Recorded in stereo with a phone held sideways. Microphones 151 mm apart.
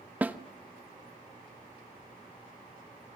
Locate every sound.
0.2 s a snare drum: 10° right (ahead or behind), 1.0 m